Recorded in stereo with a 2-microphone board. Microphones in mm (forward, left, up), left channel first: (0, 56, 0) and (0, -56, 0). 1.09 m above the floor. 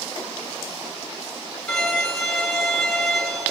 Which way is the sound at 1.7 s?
5° left (ahead or behind).